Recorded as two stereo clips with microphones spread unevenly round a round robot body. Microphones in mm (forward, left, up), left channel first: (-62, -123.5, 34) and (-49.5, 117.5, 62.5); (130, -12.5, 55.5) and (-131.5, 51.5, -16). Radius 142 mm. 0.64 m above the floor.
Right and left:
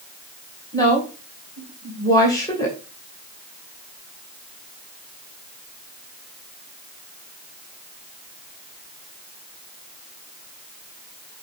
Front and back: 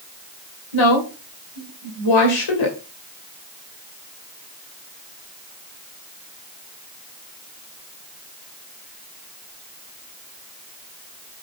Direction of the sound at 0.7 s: 15° right.